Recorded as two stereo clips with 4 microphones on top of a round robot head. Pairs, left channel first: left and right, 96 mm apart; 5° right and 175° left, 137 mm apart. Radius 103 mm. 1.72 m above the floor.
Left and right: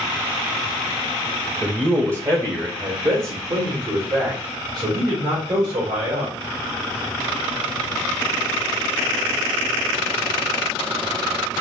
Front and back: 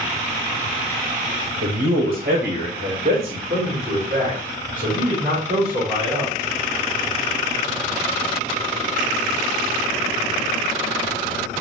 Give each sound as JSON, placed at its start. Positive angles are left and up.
{"t": 1.6, "sound": "a man speaking", "azimuth_deg": -170, "distance_m": 0.7}